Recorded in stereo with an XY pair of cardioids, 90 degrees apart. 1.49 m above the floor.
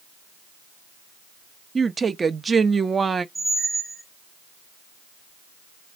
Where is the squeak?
10° right, 1.3 m.